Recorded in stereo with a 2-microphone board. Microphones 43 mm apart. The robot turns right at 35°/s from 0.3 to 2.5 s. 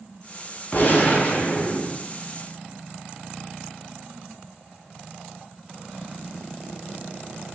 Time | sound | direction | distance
0.7 | a gunshot | 95° left | 0.8 m